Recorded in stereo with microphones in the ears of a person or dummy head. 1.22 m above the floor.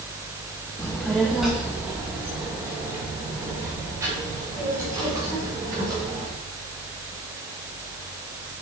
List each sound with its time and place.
0.8 s a child speaking: 15° left (ahead or behind), 0.8 m; by 6.3 s 20° right (ahead or behind), 4 m